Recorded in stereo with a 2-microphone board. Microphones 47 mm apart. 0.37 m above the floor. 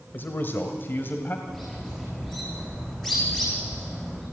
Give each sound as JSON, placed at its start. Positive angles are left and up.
{"t": 0.1, "sound": "a man speaking", "side_deg": 50, "distance_m": 1.2}
{"t": 1.5, "sound": "a bird", "side_deg": 5, "distance_m": 7.5}